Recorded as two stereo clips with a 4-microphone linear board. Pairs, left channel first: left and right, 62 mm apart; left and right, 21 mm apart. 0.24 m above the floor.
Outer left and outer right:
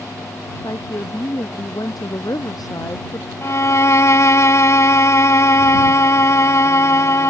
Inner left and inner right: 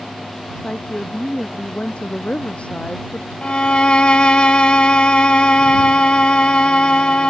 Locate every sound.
0.6 s a woman speaking: 75° left (ahead or behind)
3.4 s a violin: 50° left (ahead or behind)